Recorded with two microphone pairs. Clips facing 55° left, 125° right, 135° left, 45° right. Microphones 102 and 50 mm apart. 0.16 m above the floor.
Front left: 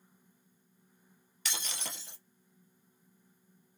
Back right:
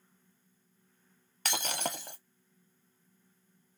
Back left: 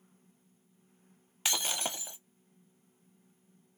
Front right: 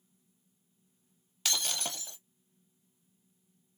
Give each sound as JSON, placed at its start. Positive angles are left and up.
{"t": 1.4, "sound": "breaking glass", "azimuth_deg": -160, "distance_m": 0.7}